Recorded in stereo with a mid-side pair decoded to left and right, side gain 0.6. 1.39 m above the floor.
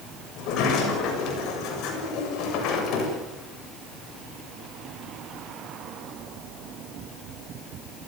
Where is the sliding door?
65° left, 7 m.